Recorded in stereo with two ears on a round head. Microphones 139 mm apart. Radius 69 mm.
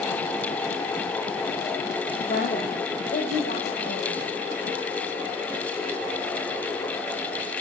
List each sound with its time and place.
2.3 s a woman speaking: 50° left (ahead or behind), 1.4 m; by 4.3 s 75° left (ahead or behind), 4 m